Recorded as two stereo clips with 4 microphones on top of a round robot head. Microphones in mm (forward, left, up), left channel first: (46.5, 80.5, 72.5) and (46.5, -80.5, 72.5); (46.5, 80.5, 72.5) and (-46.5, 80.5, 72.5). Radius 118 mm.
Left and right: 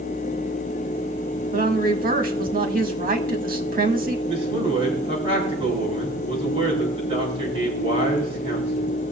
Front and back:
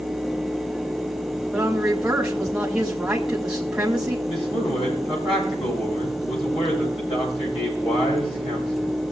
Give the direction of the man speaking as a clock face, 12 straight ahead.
1 o'clock.